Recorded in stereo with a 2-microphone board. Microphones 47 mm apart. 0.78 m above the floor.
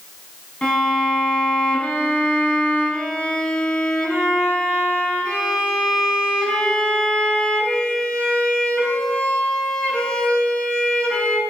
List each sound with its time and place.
0.6 s a violin: 15° left (ahead or behind), 6 m